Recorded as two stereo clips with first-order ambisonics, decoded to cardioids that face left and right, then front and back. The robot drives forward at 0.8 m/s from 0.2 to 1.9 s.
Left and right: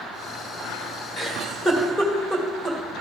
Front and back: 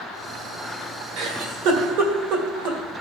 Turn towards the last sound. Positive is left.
turn(degrees=170)